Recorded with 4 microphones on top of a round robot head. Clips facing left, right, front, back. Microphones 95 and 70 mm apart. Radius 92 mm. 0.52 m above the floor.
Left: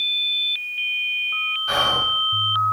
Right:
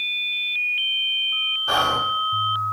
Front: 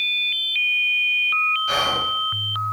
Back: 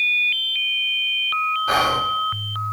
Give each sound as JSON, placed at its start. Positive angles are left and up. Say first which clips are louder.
{"t": 1.7, "sound": "whispering", "louder": "right 2 dB, back 4 dB", "azimuth_deg": -140, "distance_m": 2.0}